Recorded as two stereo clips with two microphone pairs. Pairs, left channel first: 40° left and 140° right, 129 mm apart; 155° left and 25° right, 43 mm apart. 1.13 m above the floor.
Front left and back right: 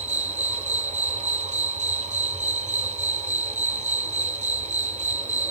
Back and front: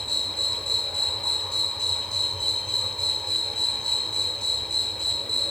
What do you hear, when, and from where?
0.0 s an insect: 130° right, 3.5 m